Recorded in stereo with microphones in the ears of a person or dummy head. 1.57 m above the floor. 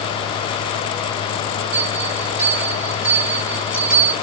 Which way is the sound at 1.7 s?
10° right (ahead or behind).